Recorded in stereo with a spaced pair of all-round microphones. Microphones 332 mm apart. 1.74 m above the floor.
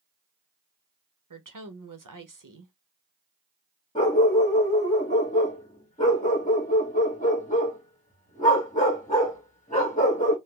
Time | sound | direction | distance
1.3 | a woman speaking | 65° right (ahead or behind) | 0.9 m
4.0 | a dog barking | 20° left (ahead or behind) | 1.3 m